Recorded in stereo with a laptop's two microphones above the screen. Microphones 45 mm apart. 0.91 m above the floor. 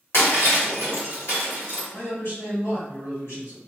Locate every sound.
0.1 s breaking glass: 85° left, 1.6 m
1.9 s a man speaking: 70° left (ahead or behind), 1.8 m